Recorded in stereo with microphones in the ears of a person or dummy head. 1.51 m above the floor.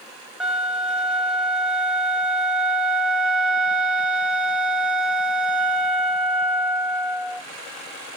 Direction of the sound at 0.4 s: 5° right (ahead or behind).